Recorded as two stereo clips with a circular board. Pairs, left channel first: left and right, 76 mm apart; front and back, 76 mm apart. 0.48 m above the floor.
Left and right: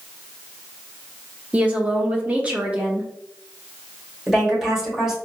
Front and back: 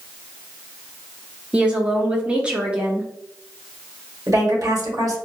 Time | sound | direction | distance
1.5 | a woman speaking | 130° right | 0.7 m
4.3 | a woman speaking | 170° right | 1.7 m